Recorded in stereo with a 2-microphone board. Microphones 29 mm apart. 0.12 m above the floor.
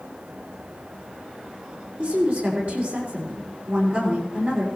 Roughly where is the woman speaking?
Right.